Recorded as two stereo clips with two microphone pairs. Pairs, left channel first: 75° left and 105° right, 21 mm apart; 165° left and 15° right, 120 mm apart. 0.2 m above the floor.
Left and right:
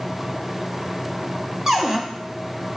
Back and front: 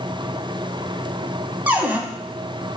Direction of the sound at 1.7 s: 80° right.